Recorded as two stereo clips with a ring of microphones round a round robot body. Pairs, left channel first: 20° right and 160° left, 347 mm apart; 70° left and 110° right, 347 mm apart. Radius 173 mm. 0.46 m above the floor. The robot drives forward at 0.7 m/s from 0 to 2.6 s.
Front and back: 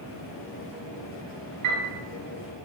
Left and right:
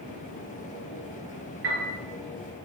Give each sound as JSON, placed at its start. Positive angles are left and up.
{"t": 1.6, "sound": "a piano", "azimuth_deg": -165, "distance_m": 4.5}